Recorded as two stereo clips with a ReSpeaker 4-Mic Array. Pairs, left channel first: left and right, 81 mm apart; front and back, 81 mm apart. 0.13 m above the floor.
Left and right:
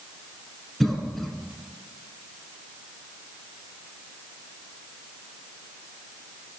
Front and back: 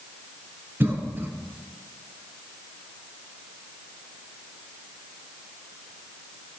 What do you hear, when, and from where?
0.8 s a cough: 170° left, 1.3 m